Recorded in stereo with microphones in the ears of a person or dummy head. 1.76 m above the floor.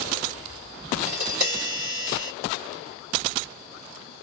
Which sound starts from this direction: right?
Tapping, at 1.1 s.